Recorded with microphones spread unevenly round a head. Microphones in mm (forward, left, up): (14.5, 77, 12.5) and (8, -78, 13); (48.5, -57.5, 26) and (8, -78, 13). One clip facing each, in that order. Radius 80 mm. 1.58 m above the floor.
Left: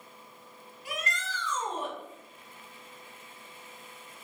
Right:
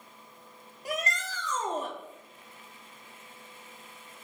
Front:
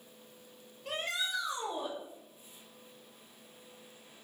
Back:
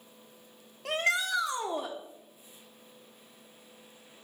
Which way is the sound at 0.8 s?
145° right.